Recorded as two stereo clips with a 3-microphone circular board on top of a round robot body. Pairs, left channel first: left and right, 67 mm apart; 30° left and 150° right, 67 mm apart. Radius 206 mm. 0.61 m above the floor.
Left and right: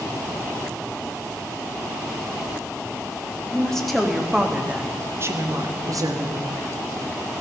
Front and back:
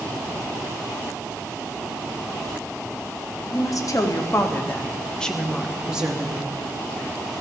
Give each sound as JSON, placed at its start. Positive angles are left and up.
{"t": 3.5, "sound": "a woman speaking", "azimuth_deg": 10, "distance_m": 1.9}